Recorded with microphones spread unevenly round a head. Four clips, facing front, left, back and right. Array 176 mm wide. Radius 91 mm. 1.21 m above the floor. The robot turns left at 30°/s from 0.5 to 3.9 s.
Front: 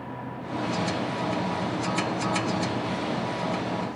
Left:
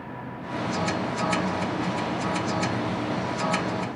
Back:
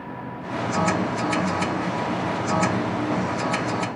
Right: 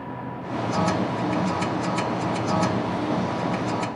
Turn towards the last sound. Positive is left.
No sound to turn to.